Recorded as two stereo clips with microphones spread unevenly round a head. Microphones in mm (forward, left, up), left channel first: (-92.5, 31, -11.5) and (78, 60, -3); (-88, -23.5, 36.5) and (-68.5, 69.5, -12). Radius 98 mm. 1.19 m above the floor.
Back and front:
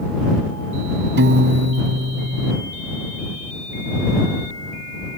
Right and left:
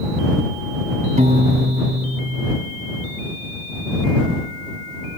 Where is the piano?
20° left.